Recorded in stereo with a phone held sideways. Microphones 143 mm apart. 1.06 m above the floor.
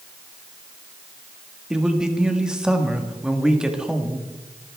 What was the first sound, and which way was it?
A man speaking, 5° right (ahead or behind).